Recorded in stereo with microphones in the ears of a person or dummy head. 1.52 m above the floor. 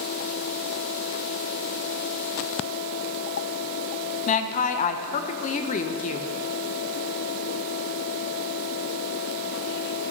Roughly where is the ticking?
No ticking in this recording.